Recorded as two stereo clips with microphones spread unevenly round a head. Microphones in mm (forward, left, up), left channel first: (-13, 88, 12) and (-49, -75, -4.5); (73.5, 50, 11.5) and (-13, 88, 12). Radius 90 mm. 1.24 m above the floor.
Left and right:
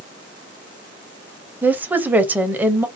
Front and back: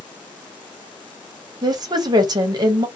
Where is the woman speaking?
175° right, 0.7 m.